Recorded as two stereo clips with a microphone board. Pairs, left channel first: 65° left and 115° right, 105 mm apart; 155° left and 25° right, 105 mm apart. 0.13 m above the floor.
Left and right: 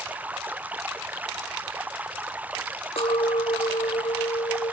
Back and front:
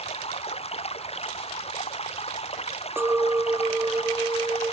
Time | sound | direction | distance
0.0 | running water | 170° left | ?
3.0 | a clink | 45° left | ?